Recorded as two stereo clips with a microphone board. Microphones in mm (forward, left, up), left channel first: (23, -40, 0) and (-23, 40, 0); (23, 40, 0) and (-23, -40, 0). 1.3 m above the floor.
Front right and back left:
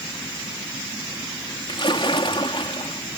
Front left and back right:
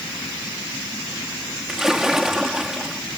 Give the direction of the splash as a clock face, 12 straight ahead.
1 o'clock.